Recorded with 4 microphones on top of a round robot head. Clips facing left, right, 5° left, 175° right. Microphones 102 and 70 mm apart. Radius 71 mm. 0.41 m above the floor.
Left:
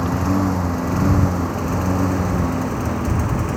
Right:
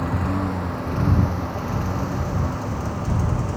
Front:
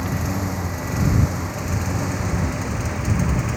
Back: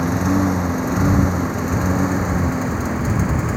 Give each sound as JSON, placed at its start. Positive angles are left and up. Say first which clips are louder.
{"t": 0.0, "sound": "a lawn mower", "louder": "left 5 dB, back 8 dB", "azimuth_deg": 155}